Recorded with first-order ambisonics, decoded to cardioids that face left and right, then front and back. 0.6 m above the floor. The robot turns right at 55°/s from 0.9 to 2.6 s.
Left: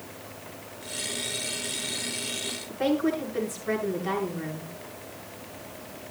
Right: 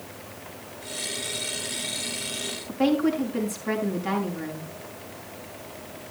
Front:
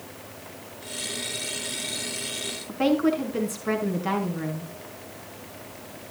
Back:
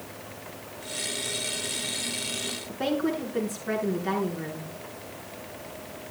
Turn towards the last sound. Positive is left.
turn(degrees=-25)